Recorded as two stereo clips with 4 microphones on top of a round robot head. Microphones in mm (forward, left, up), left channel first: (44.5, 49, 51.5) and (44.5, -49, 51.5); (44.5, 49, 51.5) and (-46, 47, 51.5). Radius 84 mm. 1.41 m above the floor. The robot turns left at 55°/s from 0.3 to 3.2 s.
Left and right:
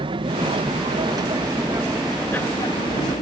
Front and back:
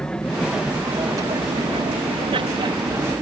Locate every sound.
0.0 s an aircraft: 80° right; by 3.2 s 120° left